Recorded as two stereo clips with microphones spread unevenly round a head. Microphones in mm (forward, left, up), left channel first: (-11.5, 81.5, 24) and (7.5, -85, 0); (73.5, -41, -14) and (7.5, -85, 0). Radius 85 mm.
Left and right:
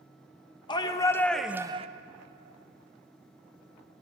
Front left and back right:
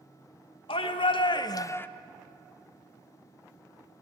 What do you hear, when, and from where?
0.7 s a shout: 35° left, 1.3 m; by 1.9 s 35° right, 0.7 m